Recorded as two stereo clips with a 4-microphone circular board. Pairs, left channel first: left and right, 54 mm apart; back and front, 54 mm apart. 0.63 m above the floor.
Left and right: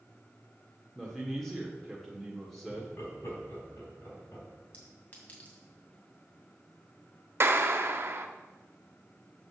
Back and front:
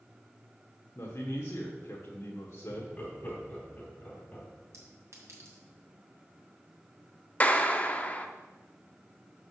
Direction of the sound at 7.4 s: 125° right.